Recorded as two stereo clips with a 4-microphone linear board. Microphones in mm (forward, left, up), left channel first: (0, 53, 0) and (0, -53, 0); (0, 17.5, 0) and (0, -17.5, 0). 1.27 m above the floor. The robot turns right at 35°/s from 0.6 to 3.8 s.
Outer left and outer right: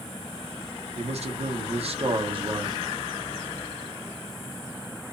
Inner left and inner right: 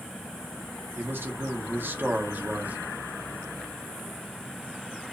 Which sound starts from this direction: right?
A man speaking, at 0.9 s.